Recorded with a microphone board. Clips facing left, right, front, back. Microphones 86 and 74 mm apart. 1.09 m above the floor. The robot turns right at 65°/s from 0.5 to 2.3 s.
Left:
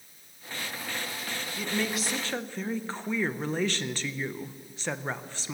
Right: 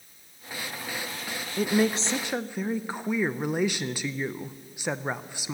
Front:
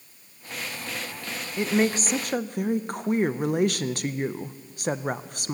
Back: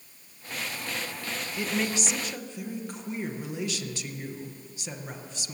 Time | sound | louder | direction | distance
1.6 | a woman speaking | right 8 dB, front 7 dB | 65° right | 0.5 m